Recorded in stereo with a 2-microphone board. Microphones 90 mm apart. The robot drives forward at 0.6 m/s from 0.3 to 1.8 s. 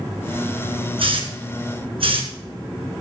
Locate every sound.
1.0 s a hiss: 75° right (ahead or behind), 2.5 m; by 2.3 s 80° right, 2.5 m